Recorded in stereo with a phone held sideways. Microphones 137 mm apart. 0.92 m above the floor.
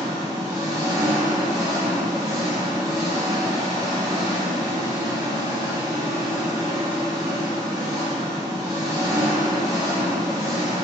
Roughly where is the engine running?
Right.